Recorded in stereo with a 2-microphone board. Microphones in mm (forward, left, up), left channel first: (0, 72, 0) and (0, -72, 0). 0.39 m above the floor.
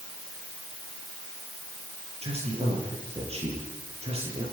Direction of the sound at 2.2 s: 45° right (ahead or behind).